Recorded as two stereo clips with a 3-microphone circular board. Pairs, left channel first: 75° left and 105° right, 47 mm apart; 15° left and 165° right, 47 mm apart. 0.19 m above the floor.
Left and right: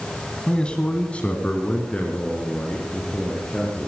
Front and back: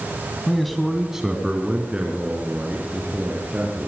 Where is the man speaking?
80° left, 1.4 m; by 3.9 s 140° left, 3.5 m.